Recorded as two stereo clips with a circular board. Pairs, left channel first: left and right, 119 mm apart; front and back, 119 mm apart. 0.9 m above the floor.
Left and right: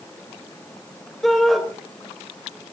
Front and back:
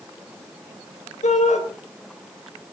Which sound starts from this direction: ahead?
A shout, at 1.2 s.